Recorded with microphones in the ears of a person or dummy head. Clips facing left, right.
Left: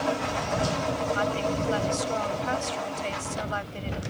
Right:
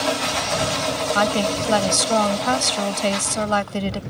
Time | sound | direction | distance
1.1 | a woman speaking | 85° right | ?